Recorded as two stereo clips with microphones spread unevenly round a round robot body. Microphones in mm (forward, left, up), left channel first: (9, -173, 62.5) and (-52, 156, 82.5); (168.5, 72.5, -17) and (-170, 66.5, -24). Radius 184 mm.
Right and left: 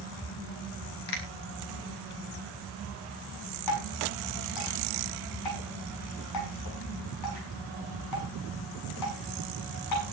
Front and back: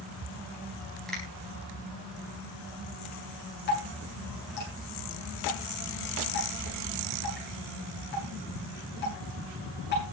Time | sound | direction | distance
1.1 | a finger snap | 90° right | 4 m
3.7 | dripping | 65° right | 6.5 m